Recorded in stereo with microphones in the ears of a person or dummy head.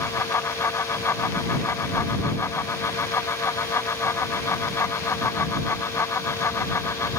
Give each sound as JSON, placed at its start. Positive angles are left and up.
{"t": 0.0, "sound": "a fan", "side_deg": 10}